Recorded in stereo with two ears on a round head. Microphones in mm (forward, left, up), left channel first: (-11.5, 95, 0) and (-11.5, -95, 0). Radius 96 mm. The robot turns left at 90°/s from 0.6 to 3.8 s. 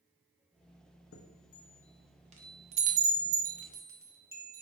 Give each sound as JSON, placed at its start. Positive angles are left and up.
{"t": 1.1, "sound": "a chime", "side_deg": 65, "distance_m": 0.6}